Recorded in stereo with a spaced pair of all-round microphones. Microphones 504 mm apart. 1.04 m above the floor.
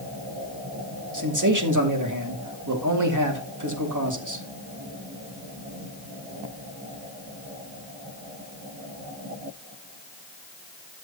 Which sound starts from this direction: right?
A man speaking, at 1.1 s.